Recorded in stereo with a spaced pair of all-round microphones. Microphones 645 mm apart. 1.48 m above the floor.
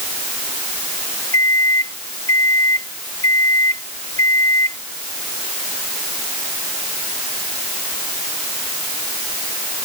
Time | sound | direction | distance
1.3 | a microwave | 60° left (ahead or behind) | ?